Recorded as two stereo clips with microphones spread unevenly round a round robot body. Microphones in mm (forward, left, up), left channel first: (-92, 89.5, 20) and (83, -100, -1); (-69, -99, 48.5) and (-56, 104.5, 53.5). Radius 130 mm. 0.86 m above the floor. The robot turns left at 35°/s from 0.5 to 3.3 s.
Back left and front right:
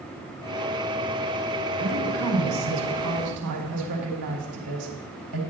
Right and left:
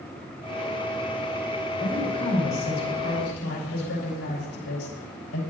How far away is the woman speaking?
About 5.5 m.